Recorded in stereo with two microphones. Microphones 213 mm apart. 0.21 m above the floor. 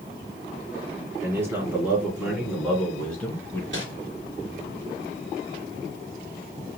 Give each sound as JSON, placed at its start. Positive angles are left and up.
{"t": 1.2, "sound": "a man speaking", "side_deg": -10, "distance_m": 3.0}
{"t": 3.7, "sound": "crumpling", "side_deg": -60, "distance_m": 2.0}